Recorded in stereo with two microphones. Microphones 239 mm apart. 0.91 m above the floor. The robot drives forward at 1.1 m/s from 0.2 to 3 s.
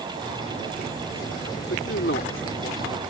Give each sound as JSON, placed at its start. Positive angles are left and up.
{"t": 1.7, "sound": "a man speaking", "side_deg": 65}